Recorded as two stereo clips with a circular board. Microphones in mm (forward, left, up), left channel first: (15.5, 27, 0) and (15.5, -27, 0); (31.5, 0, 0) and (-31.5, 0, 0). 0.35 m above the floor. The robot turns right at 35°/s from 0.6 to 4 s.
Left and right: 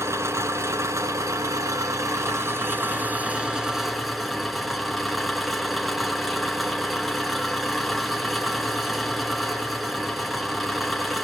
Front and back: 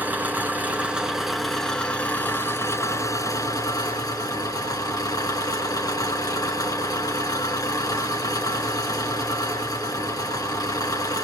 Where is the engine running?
120° right, 3 m; by 11.2 s straight ahead, 3 m.